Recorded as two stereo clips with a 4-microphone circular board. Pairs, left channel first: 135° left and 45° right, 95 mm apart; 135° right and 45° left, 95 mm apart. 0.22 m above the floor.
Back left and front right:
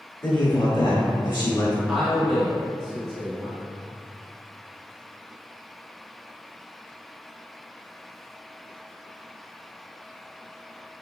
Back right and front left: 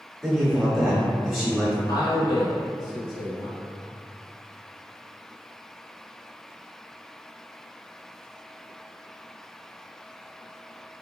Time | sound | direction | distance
0.2 | a man speaking | 125° left | 1.1 m
1.9 | a man speaking | 130° right | 1.3 m